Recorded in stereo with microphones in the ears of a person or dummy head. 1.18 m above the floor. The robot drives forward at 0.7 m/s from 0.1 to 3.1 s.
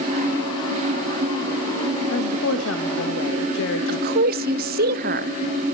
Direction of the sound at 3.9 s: 45° right (ahead or behind).